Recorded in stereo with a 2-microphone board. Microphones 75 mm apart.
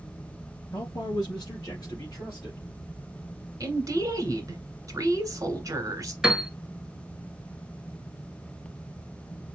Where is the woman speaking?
40° right (ahead or behind), 1.7 m.